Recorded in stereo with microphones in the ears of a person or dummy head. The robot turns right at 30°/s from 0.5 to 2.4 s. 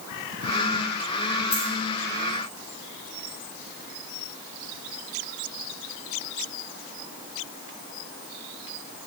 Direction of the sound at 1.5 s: 35° left (ahead or behind).